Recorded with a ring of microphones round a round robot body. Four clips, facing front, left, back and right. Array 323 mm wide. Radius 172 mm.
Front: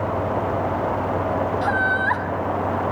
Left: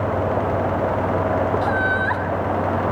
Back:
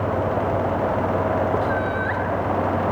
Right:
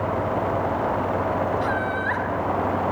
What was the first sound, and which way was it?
Laughter, 25° left.